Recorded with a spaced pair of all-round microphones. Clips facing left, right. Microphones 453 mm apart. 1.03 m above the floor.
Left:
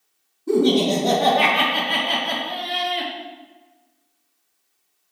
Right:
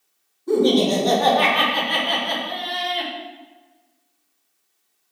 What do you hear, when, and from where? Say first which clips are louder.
0.5 s laughter: even; 45° left (ahead or behind), 1.4 m